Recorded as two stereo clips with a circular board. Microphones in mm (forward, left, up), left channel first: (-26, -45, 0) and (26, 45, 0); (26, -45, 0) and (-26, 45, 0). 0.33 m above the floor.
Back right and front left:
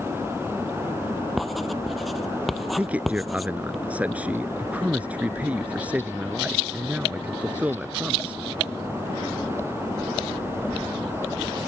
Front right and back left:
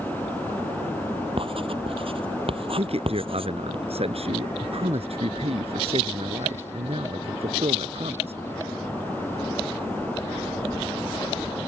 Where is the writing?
150° left.